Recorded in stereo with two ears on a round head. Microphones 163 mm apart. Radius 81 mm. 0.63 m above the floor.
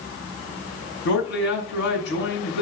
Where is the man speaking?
70° left (ahead or behind), 5 m.